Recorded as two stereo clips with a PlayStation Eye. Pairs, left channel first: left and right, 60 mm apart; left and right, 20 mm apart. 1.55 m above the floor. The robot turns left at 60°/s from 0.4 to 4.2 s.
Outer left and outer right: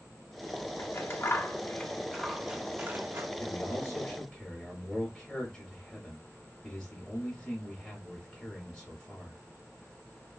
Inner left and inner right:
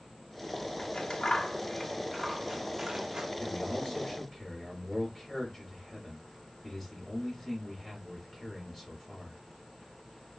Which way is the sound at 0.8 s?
45° left (ahead or behind).